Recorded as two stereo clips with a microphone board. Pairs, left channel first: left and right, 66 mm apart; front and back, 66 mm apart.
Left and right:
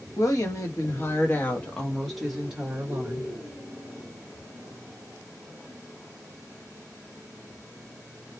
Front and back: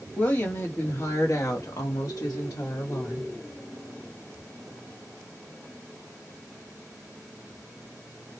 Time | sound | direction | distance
0.2 | a woman speaking | 65° left | 1.2 m